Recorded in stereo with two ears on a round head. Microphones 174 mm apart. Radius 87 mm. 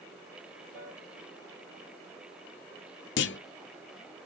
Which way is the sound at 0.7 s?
55° right (ahead or behind).